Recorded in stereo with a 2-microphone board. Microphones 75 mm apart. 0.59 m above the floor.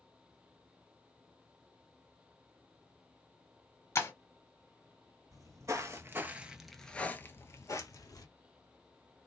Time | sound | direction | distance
4.0 | breaking glass | 40° left (ahead or behind) | 1.2 m
5.3 | footsteps | 55° right (ahead or behind) | 0.9 m